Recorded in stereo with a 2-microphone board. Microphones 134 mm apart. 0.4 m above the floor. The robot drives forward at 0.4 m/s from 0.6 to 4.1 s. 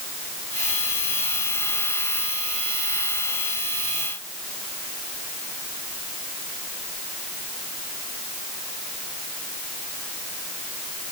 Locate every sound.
Only background noise.